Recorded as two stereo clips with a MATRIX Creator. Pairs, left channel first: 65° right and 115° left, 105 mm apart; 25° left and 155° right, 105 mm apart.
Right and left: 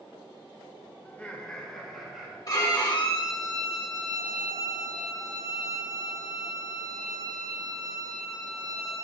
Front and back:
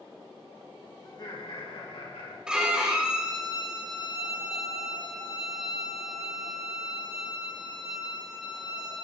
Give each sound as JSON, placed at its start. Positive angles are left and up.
{"t": 1.1, "sound": "laughter", "azimuth_deg": 0, "distance_m": 1.4}
{"t": 2.5, "sound": "a violin", "azimuth_deg": -80, "distance_m": 1.5}